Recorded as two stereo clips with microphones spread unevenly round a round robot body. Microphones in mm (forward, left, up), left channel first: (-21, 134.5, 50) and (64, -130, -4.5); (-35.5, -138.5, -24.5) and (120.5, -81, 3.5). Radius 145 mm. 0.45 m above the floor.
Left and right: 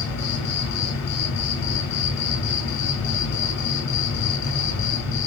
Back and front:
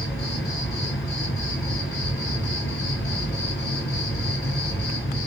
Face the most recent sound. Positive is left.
turn(degrees=125)